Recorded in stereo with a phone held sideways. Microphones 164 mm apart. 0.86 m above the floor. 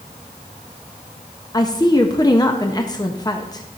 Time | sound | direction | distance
1.5 | a woman speaking | 25° left (ahead or behind) | 0.6 m